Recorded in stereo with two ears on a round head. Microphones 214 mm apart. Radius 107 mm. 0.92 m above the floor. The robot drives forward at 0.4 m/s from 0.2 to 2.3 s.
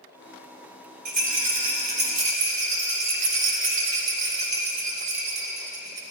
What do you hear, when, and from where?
1.1 s a rattle: 35° right (ahead or behind), 4 m